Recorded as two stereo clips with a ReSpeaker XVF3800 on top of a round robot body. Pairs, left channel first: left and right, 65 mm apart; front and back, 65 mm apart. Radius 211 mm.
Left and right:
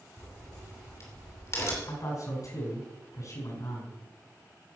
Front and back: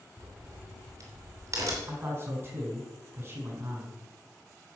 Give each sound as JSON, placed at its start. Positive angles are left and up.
{"t": 0.2, "sound": "a crack", "azimuth_deg": 135, "distance_m": 2.5}
{"t": 1.9, "sound": "a man speaking", "azimuth_deg": 125, "distance_m": 4.5}